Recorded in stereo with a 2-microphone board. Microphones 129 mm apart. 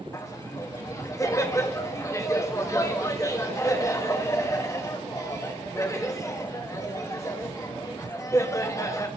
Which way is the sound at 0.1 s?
25° left (ahead or behind).